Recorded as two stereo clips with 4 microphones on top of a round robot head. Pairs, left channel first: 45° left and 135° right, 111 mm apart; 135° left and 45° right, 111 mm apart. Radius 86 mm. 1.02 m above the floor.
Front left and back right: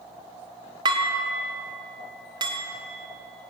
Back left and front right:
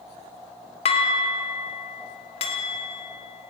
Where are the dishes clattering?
170° left, 1.6 m.